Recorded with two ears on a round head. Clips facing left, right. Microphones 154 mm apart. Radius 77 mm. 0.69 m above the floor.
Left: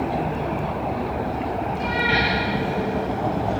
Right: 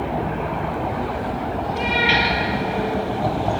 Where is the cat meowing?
80° right, 7 m.